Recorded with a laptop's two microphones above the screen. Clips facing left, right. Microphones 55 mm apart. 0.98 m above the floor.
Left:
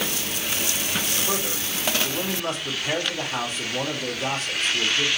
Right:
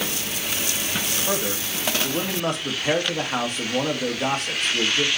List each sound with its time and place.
1.3 s a man speaking: 60° right (ahead or behind), 1.3 m